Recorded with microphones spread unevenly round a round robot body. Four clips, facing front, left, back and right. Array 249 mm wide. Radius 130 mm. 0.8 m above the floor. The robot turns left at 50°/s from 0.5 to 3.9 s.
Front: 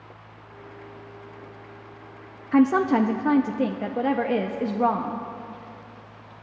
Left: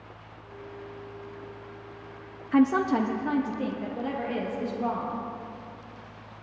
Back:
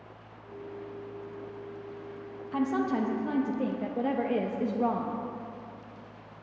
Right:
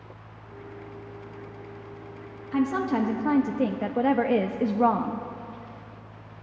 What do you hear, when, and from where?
2.5 s a woman speaking: 25° left, 0.6 m; by 5.2 s 45° right, 0.6 m